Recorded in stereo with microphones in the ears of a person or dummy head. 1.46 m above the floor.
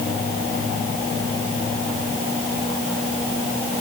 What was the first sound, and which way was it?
Only background noise.